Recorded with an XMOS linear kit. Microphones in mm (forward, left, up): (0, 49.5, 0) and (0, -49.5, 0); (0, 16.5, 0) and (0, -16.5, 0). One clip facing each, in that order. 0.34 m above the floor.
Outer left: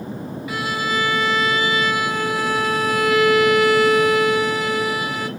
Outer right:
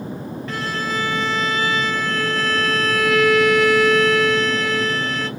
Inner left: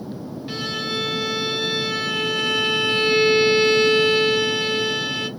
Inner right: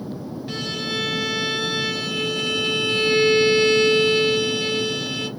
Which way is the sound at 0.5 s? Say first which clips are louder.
Outer left 2 dB, inner left 1 dB; 10° left (ahead or behind).